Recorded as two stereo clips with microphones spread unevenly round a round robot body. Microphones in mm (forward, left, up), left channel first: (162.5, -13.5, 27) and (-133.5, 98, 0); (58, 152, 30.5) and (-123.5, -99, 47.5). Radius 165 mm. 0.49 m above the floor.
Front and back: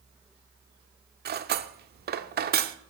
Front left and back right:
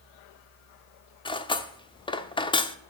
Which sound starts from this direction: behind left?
Cutlery clinking, at 1.2 s.